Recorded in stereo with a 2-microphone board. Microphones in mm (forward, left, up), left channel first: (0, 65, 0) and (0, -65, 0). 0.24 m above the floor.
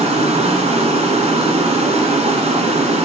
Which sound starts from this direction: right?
Running water, at 0.0 s.